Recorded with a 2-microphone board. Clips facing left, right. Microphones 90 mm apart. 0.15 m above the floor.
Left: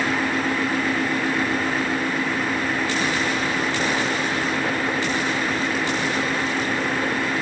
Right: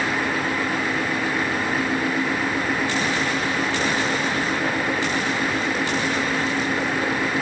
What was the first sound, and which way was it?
Only background noise.